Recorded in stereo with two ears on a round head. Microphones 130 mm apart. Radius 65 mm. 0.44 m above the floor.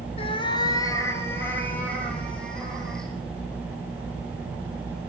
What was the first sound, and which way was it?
A cat meowing, 45° left (ahead or behind).